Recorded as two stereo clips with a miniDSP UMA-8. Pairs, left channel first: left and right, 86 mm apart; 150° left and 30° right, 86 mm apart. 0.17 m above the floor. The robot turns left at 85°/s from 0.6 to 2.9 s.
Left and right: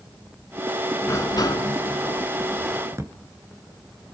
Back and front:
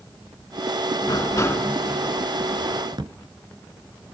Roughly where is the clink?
I don't hear a clink.